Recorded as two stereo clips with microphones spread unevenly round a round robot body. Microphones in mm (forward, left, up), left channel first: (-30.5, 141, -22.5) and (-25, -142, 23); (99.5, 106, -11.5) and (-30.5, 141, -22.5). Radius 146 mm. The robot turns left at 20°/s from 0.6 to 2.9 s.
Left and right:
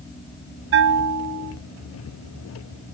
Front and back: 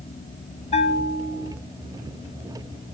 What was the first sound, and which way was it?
A bell, 50° right.